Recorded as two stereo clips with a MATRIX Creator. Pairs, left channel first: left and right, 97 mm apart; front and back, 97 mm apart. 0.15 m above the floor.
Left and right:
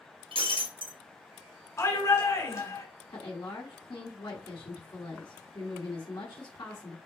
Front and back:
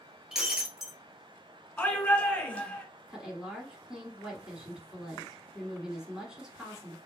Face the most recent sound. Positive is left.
turn(degrees=100)